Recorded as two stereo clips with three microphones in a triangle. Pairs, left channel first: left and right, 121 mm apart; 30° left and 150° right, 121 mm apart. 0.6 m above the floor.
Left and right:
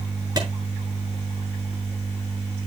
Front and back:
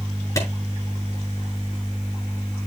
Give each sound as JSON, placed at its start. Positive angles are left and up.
{"t": 0.4, "sound": "a clap", "azimuth_deg": -35, "distance_m": 7.0}